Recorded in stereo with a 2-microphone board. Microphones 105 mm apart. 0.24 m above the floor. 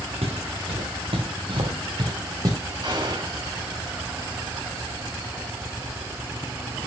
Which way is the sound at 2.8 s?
45° right (ahead or behind).